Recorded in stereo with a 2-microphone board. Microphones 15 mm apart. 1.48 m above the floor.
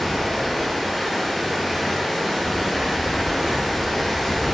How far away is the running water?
About 1.0 m.